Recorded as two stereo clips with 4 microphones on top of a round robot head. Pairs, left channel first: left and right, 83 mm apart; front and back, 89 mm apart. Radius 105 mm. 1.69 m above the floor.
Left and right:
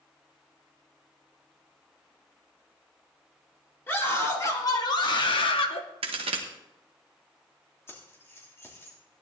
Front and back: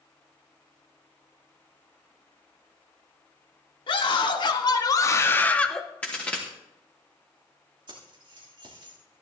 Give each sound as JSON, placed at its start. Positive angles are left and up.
{"t": 3.9, "sound": "a scream", "azimuth_deg": 25, "distance_m": 1.9}
{"t": 6.0, "sound": "a crack", "azimuth_deg": -80, "distance_m": 1.1}
{"t": 7.9, "sound": "keys jangling", "azimuth_deg": 150, "distance_m": 3.0}